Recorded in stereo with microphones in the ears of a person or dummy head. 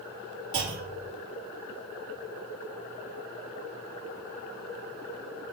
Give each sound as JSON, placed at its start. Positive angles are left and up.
{"t": 0.5, "sound": "a clunk", "side_deg": -75, "distance_m": 1.4}